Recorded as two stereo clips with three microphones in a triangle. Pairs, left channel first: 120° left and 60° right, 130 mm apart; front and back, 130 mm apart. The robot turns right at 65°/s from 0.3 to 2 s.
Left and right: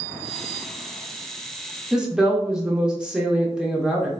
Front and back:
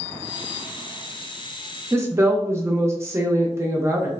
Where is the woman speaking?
140° right, 0.6 m; by 4.1 s 135° right, 0.6 m.